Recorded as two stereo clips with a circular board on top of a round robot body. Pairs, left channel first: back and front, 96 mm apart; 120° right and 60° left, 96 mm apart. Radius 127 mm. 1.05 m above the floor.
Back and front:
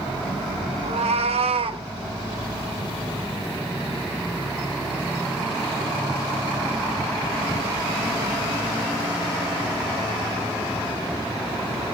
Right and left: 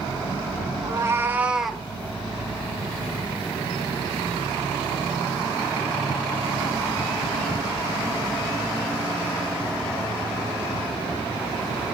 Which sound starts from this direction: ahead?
A cat meowing, at 0.8 s.